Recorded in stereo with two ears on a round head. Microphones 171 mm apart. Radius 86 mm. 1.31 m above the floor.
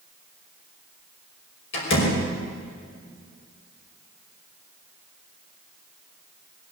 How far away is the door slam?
About 5.5 m.